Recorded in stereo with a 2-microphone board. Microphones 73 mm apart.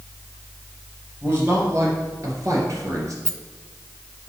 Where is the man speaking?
35° right (ahead or behind), 3.5 m; by 3.1 s 50° right (ahead or behind), 2.5 m.